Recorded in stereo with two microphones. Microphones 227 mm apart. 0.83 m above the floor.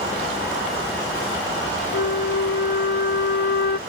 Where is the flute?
50° left (ahead or behind).